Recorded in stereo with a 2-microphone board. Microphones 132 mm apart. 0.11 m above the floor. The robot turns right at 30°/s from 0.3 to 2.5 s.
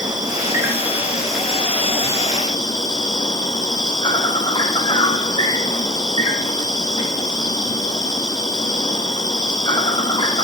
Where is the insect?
30° right, 1.2 m; by 10.4 s 35° left, 1.2 m.